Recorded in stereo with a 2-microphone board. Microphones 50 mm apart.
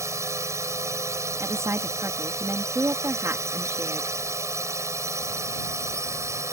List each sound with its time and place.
0.0 s a drone: 85° right
1.4 s a woman speaking: 75° right (ahead or behind)